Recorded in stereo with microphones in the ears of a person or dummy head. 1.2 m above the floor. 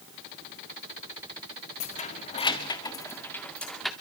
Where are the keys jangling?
35° left (ahead or behind), 1.7 m; by 3.9 s centre (ahead or behind), 2.0 m.